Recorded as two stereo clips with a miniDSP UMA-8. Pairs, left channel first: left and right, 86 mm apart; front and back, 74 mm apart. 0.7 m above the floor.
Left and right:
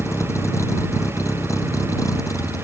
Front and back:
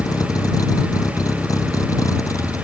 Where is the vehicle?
35° left; by 2.6 s 40° left.